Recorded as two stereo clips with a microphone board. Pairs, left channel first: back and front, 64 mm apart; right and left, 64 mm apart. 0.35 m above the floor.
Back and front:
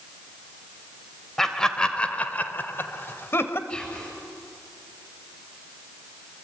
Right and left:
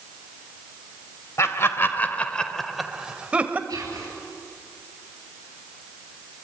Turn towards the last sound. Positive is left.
turn(degrees=110)